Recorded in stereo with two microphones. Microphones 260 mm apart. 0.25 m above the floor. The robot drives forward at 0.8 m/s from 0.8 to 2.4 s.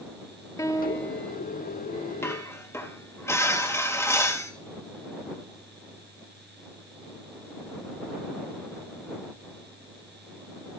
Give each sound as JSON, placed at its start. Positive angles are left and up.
{"t": 0.6, "sound": "a piano", "side_deg": 10, "distance_m": 0.9}
{"t": 2.2, "sound": "dishes clattering", "side_deg": 10, "distance_m": 4.0}